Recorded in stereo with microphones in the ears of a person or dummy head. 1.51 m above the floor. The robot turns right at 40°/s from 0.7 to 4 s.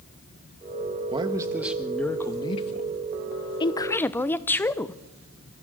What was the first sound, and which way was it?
A man speaking, 30° right.